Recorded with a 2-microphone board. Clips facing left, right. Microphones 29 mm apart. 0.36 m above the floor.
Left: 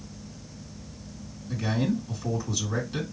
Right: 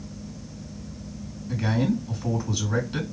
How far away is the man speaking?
About 3 m.